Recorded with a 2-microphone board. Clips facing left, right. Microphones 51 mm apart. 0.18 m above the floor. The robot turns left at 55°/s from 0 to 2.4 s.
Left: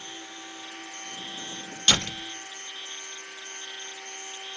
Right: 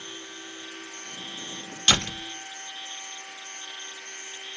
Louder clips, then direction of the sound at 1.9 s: Right 1 dB; 20° right (ahead or behind).